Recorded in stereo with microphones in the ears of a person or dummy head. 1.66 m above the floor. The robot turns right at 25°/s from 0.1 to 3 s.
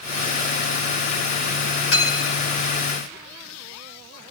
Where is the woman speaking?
I don't hear a woman speaking.